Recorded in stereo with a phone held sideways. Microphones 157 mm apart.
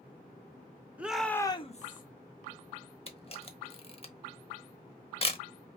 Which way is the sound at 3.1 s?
40° left (ahead or behind).